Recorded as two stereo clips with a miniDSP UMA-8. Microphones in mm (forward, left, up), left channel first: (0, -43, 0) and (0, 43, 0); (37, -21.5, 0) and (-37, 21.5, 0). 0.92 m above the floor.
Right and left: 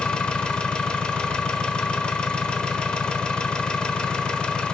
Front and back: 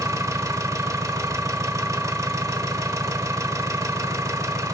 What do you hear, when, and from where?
0.0 s an engine running: 165° right, 1.0 m